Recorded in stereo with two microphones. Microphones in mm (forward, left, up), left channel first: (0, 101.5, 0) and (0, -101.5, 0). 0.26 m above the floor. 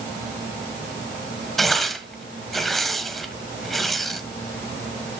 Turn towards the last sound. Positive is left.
turn(degrees=0)  # may be behind; listen again after turning